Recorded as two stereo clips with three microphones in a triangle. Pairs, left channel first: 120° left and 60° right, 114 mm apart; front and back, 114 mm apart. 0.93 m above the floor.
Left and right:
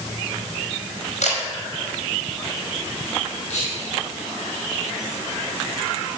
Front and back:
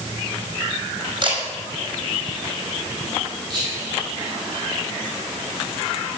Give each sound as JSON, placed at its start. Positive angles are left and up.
{"t": 1.2, "sound": "a camera shutter", "azimuth_deg": 135, "distance_m": 5.0}
{"t": 3.5, "sound": "whispering", "azimuth_deg": 130, "distance_m": 3.0}